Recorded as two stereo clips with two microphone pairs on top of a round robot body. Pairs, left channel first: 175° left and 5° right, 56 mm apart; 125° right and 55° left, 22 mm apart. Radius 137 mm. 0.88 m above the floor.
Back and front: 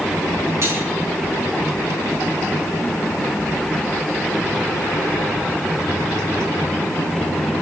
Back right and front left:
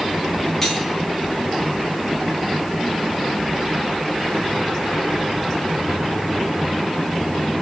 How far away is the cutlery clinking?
About 8.5 m.